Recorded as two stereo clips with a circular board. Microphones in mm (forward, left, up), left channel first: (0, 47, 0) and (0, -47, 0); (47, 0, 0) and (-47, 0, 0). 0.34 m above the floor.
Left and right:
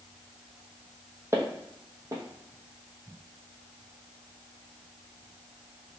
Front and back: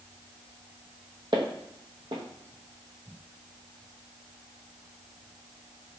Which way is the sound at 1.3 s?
150° right.